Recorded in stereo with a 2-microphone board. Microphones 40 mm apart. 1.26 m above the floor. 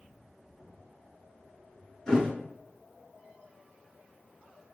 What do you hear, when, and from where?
2.1 s a thud: 20° left (ahead or behind), 1.5 m